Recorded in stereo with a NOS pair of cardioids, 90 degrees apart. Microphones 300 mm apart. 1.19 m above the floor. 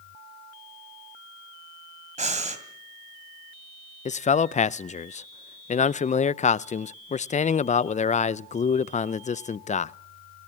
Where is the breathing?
25° right, 2.5 m.